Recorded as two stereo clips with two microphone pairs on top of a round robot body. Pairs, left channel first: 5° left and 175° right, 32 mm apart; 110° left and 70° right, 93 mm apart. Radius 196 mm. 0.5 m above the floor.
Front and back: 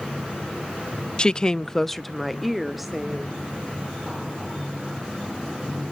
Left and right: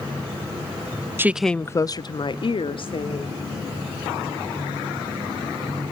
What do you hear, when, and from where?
1.2 s a woman speaking: 25° right, 0.7 m; by 3.4 s 105° left, 2 m